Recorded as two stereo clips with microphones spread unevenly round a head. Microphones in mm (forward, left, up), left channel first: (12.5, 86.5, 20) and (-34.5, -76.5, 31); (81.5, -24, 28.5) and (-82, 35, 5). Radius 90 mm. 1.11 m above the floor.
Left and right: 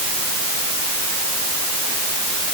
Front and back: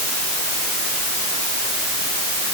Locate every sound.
Only background noise.